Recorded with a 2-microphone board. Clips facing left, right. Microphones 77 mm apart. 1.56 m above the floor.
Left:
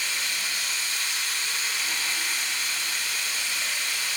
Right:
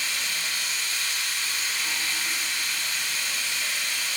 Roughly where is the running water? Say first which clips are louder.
Even; left.